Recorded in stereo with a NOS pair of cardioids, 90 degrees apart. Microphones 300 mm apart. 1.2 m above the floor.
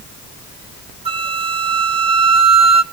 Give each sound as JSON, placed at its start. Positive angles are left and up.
{"t": 1.1, "sound": "a flute", "azimuth_deg": -20, "distance_m": 0.8}